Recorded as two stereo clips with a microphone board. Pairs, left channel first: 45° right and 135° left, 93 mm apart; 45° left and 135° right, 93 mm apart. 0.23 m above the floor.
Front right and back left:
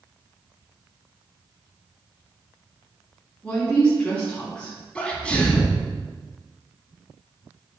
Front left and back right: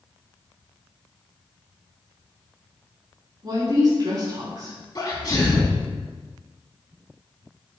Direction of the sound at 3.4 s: 115° right.